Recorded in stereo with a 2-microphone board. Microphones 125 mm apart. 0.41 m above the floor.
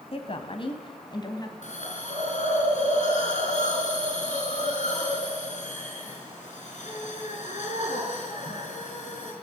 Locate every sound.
0.1 s a woman speaking: 50° left (ahead or behind), 2.5 m; by 1.5 s 30° left (ahead or behind), 2.5 m
1.6 s a hiss: 75° left (ahead or behind), 5 m